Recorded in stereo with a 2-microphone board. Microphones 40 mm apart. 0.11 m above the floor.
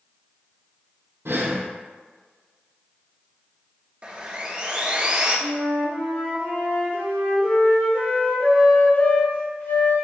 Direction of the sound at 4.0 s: 30° right (ahead or behind).